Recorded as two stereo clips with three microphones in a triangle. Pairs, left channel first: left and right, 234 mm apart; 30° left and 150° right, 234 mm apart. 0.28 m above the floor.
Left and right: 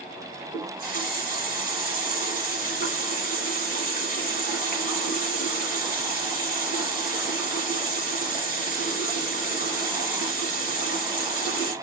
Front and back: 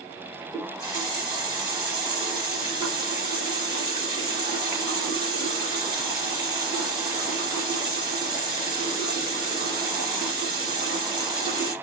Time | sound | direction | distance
0.5 | a running tap | 140° left | 2.5 m